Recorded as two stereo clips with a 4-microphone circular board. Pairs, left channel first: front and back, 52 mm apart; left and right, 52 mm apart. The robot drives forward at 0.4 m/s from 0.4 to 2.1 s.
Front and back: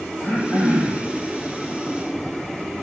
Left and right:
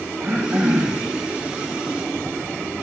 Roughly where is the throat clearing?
Behind right.